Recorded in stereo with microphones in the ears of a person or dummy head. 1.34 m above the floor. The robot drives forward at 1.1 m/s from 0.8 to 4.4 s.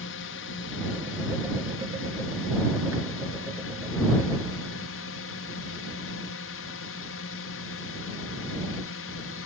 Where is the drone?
60° left (ahead or behind).